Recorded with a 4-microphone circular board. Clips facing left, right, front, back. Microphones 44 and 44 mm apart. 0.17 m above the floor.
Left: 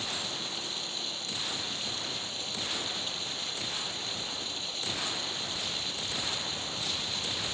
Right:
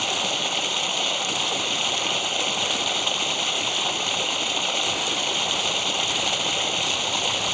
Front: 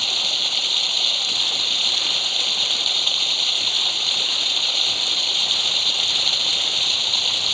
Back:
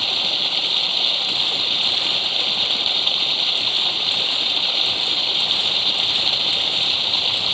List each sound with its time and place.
0.0 s running water: 100° right